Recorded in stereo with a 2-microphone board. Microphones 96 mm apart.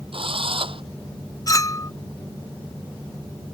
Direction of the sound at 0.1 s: 65° right (ahead or behind).